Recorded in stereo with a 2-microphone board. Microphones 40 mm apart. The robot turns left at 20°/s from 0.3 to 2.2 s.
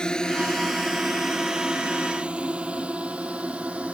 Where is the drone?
20° left (ahead or behind); by 4.0 s 30° right (ahead or behind).